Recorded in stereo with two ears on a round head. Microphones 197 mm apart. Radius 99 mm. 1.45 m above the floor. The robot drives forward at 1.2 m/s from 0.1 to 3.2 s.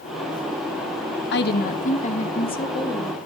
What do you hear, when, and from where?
1.3 s a woman speaking: 55° left (ahead or behind), 1.3 m; by 3.2 s 20° left (ahead or behind), 3 m